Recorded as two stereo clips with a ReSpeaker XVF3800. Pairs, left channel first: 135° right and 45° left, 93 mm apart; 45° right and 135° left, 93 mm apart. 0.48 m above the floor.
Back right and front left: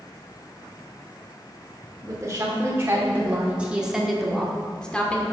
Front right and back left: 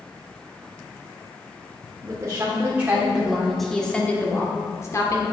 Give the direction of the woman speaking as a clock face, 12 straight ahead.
9 o'clock.